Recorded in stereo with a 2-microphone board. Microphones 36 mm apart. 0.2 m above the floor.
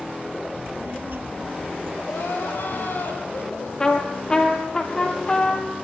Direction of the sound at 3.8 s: 20° left (ahead or behind).